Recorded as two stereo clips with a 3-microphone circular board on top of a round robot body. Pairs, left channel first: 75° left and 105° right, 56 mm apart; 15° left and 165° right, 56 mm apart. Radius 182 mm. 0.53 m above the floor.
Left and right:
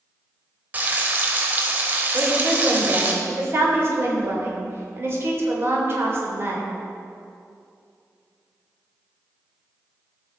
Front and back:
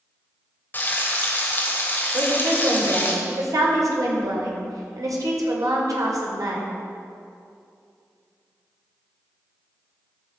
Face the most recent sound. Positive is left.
turn(degrees=-150)